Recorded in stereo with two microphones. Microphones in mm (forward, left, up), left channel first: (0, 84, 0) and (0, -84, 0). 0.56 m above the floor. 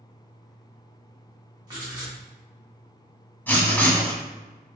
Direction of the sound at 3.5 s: 10° left (ahead or behind).